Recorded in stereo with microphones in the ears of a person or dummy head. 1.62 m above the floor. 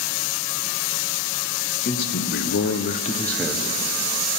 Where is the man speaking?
55° left (ahead or behind), 1.6 m; by 4.4 s 20° right (ahead or behind), 2 m.